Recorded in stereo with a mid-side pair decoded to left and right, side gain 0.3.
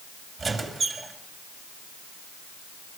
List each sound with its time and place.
0.4 s a squeak: 50° right, 6 m